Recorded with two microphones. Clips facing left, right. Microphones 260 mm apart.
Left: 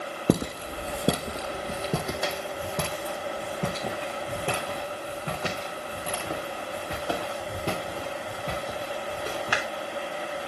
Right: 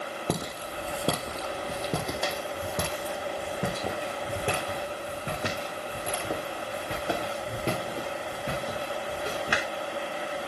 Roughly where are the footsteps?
Left.